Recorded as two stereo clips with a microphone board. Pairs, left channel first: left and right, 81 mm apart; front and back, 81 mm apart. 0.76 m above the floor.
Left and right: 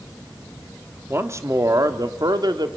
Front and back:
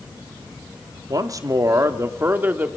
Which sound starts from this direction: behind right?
A man speaking, at 1.1 s.